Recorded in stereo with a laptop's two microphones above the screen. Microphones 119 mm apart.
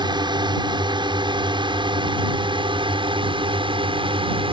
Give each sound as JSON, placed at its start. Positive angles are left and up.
{"t": 0.0, "sound": "a drone", "side_deg": -40}